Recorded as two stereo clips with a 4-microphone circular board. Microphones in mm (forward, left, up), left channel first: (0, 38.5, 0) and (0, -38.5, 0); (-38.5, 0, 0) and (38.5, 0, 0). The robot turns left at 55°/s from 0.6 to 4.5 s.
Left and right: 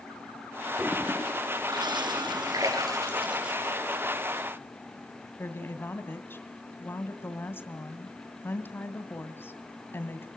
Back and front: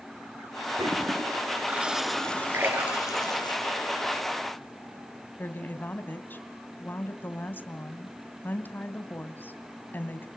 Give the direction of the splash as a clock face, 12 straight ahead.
2 o'clock.